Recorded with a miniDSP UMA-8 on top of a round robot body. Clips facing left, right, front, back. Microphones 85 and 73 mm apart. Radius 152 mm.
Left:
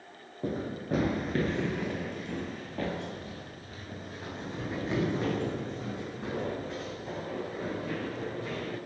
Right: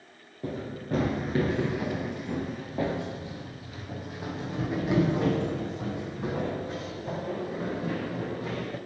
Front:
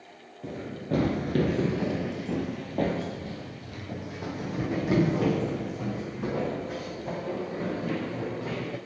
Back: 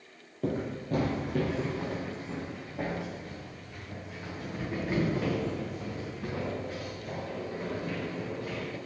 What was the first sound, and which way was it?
Running footsteps, 145° left.